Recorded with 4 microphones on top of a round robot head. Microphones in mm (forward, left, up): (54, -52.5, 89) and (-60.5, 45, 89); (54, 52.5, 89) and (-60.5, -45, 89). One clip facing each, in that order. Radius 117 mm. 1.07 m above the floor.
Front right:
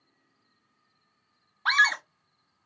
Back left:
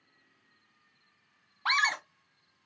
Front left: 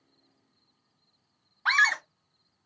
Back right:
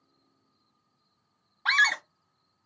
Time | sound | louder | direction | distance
1.6 | a scream | front right 3 dB, front left 1 dB | 150° right | 0.7 m